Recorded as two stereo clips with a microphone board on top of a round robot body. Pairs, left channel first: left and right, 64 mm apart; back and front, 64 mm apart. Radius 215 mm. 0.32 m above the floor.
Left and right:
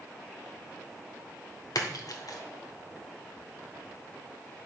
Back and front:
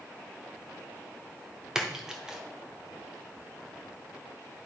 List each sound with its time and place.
1.8 s a splash: 80° left, 1.1 m